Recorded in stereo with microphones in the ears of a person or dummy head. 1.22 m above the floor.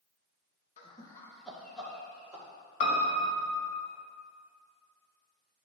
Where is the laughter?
35° left (ahead or behind), 0.9 m; by 2.5 s 5° right (ahead or behind), 3 m.